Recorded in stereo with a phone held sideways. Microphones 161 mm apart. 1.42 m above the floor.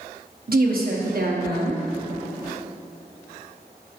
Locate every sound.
0.5 s a woman speaking: 65° right (ahead or behind), 0.9 m